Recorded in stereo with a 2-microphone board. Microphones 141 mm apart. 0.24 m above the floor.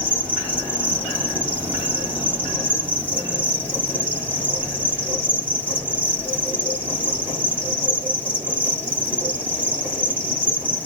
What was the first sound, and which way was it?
An insect, 10° left (ahead or behind).